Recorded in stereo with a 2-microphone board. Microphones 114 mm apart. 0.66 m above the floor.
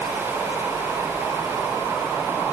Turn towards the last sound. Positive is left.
No sound to turn to.